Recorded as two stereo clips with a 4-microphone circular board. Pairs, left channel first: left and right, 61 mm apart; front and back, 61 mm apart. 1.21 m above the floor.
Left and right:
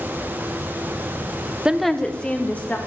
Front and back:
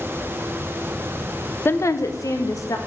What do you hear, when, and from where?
1.6 s a woman speaking: 25° right, 0.6 m; by 2.8 s 25° left, 2 m